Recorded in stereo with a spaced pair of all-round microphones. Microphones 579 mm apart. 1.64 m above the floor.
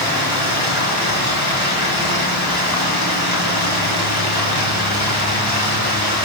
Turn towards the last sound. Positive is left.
turn(degrees=40)  # may be behind; listen again after turning